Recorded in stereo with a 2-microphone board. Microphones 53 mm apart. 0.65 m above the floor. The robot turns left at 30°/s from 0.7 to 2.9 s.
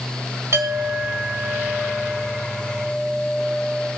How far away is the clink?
About 1.7 m.